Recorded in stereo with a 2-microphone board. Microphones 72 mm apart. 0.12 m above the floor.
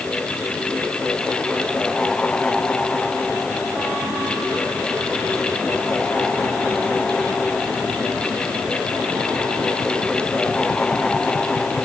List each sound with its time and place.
Only background noise.